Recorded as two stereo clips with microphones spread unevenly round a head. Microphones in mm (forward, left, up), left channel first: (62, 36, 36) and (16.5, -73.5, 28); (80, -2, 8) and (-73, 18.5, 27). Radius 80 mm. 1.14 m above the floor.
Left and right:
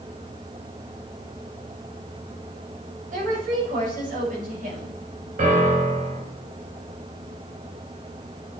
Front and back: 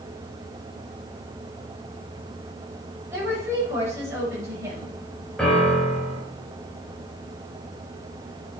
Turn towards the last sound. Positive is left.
turn(degrees=-95)